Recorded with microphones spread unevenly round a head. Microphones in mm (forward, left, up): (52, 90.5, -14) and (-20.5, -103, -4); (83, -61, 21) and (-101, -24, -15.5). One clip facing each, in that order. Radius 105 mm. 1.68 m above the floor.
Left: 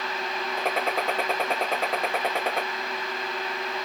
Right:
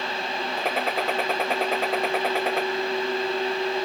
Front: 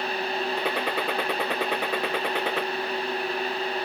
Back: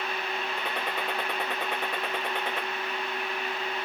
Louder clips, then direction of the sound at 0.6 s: Even, front 6 dB; 20° right.